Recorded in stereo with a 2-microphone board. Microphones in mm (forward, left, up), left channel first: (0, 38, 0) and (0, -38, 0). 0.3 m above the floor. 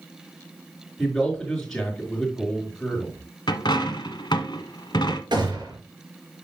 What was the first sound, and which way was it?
A man speaking, 5° left (ahead or behind).